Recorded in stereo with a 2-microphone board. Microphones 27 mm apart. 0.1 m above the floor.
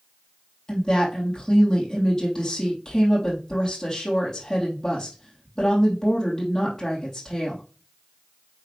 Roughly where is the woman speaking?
Centre.